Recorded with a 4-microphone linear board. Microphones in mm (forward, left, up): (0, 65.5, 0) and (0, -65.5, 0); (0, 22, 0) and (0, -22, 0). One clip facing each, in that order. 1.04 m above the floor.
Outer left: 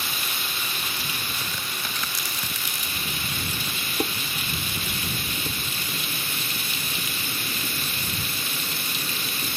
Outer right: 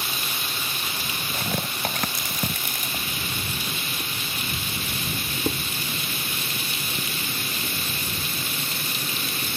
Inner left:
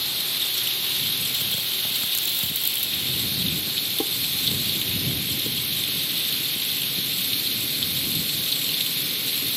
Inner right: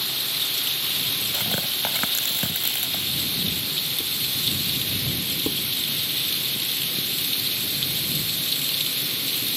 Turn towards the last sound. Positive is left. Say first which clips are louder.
# outer right 13 dB, inner right 2 dB
turn(degrees=-35)  # may be behind; listen again after turning